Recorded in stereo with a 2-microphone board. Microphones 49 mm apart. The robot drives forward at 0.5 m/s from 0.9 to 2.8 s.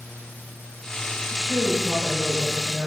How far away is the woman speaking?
About 9.5 m.